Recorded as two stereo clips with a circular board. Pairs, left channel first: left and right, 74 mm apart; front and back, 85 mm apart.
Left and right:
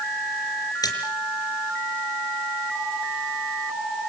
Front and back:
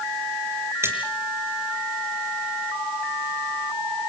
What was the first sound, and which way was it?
A splash, 120° left.